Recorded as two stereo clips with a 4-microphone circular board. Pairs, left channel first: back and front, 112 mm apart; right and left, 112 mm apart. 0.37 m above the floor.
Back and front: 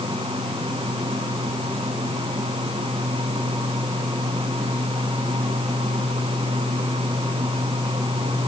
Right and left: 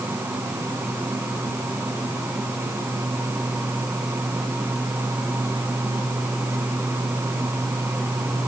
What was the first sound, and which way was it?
Only background noise.